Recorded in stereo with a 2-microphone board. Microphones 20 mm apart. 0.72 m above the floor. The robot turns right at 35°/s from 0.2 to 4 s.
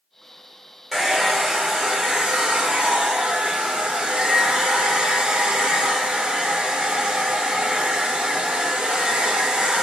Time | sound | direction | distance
0.9 | a hair dryer | 170° right | 0.9 m